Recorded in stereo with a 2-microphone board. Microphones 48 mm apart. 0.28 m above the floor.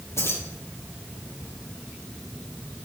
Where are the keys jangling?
75° left (ahead or behind), 5 m.